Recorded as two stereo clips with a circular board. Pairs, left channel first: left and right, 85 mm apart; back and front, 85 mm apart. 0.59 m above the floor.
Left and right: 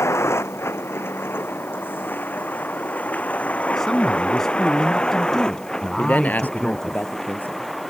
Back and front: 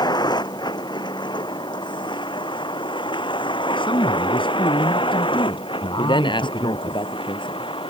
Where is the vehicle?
145° left; by 7.9 s straight behind.